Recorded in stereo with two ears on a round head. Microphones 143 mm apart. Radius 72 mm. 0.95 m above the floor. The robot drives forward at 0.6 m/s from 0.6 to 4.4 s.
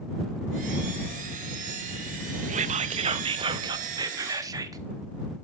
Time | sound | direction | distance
2.5 | whispering | 50° right (ahead or behind) | 0.9 m